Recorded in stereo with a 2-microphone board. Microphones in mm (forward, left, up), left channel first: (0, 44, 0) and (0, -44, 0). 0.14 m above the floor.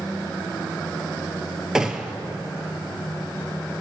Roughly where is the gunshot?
Centre.